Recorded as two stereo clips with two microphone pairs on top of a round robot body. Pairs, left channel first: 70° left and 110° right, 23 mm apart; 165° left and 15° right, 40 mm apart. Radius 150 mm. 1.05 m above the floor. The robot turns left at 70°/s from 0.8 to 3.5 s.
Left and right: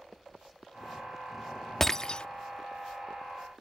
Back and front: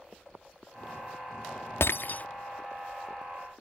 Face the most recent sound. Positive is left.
turn(degrees=20)